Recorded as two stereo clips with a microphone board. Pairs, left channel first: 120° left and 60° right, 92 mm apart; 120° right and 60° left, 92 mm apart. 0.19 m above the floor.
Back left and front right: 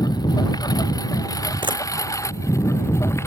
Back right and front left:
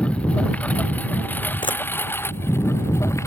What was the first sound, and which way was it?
A lawn mower, 165° left.